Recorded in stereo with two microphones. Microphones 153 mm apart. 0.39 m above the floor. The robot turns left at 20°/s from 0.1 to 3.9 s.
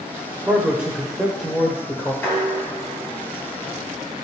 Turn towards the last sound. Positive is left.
turn(degrees=130)